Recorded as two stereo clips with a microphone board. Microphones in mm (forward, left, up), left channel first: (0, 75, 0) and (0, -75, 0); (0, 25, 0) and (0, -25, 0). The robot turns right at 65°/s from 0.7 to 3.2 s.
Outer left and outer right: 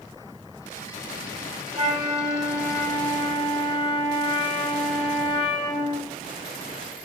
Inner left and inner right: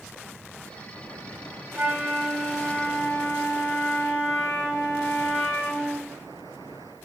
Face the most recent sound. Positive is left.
turn(degrees=35)